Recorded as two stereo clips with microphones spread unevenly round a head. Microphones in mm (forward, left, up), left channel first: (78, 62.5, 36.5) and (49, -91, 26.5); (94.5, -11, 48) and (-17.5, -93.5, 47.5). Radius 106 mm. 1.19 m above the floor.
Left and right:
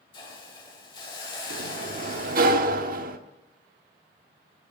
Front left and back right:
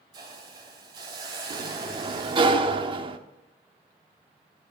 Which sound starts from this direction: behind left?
A hiss, at 0.1 s.